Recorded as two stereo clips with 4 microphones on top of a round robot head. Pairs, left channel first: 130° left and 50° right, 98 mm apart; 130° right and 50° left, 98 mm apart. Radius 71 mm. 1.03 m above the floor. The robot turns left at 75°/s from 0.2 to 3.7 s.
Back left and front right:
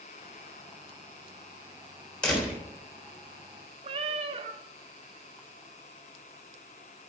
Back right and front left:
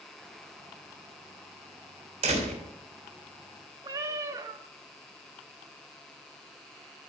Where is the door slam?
50° left, 3 m; by 2.6 s 20° left, 3 m.